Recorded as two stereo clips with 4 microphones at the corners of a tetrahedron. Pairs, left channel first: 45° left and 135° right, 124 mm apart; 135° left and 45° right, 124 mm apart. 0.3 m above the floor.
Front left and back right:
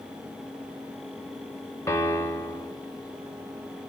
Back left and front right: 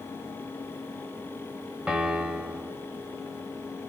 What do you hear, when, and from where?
1.9 s a piano: 20° left, 1.0 m